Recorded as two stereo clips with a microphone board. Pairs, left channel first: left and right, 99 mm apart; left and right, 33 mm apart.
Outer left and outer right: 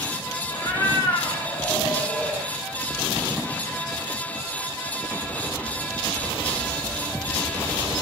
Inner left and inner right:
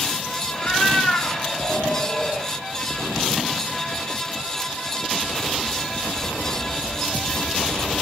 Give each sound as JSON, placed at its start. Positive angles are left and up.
{"t": 0.5, "sound": "a cat meowing", "side_deg": 45, "distance_m": 2.0}